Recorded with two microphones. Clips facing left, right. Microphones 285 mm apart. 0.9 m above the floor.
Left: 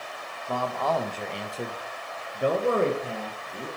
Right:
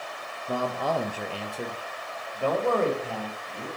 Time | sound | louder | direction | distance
0.5 | a man speaking | even | 20° right (ahead or behind) | 0.6 m